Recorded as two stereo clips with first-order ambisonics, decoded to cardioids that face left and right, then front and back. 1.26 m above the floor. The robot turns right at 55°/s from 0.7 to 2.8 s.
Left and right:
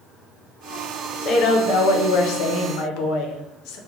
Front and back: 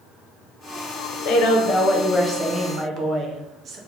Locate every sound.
1.2 s a woman speaking: 30° left, 0.6 m; by 3.8 s 115° left, 0.6 m